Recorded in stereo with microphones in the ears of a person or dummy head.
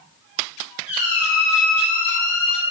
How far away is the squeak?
About 1.5 m.